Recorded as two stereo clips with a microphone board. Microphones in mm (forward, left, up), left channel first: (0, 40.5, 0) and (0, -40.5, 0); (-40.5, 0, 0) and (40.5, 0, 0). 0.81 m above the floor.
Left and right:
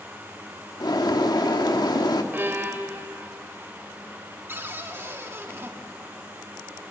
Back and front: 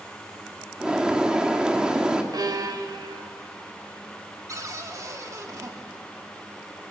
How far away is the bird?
About 1.8 m.